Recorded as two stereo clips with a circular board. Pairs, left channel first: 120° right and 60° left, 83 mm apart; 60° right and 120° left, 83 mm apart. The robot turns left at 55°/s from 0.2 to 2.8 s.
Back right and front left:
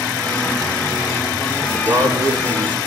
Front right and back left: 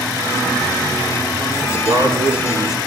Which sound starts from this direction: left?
A man speaking, at 1.6 s.